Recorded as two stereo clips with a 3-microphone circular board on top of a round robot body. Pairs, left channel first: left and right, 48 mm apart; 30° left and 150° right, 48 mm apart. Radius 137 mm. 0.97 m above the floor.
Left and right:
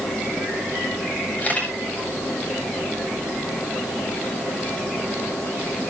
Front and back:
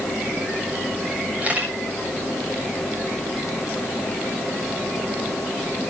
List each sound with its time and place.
1.4 s a camera shutter: 150° left, 7.5 m